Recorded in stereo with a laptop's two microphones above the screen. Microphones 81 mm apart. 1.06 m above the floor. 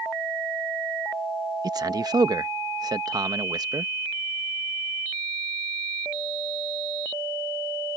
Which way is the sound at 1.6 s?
50° right (ahead or behind).